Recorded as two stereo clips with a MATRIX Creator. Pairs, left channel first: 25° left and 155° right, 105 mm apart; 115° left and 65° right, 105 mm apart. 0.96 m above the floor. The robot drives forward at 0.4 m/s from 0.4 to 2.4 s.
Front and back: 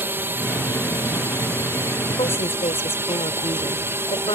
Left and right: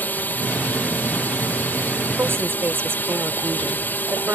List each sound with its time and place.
0.0 s a drone: 160° left; by 4.3 s 165° left
2.2 s a woman speaking: straight ahead